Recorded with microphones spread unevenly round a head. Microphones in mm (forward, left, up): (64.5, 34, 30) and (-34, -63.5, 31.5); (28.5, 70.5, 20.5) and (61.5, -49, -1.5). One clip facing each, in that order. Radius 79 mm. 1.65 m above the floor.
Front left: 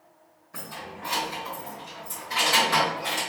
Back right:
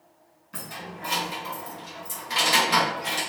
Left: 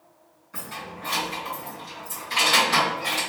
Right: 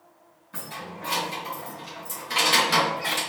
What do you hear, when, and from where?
0.5 s keys jangling: 125° right, 1.6 m; by 3.2 s 45° right, 1.1 m